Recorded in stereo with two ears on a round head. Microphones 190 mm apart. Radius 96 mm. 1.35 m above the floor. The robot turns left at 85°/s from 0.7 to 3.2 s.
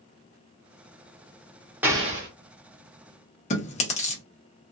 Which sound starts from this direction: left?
Chewing, at 3.5 s.